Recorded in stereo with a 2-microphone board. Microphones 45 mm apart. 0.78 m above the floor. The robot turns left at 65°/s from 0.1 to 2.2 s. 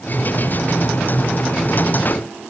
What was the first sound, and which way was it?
Only background noise.